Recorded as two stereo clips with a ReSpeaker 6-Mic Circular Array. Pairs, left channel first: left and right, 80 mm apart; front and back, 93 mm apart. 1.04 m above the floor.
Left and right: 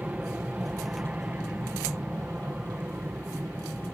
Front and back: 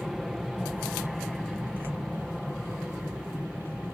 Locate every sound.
0.0 s an aircraft: 95° right